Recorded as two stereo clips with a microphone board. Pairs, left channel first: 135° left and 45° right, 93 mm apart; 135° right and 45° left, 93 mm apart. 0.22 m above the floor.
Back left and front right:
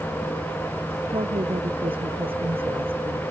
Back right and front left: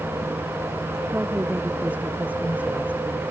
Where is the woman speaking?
30° right.